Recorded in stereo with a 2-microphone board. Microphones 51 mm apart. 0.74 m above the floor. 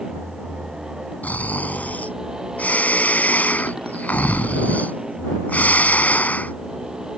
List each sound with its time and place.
0.0 s a motorcycle: 15° right (ahead or behind)
1.2 s snoring: 35° left (ahead or behind)